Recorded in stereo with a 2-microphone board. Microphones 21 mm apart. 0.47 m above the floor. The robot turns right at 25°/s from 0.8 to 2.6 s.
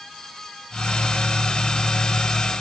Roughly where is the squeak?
No squeak in this recording.